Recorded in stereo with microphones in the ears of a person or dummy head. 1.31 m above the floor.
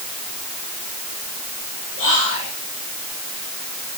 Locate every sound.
2.0 s whispering: 45° left (ahead or behind), 3 m